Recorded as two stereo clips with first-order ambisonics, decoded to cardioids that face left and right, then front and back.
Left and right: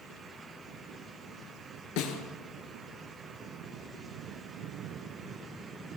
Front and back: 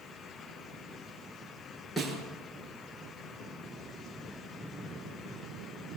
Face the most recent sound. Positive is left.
turn(degrees=90)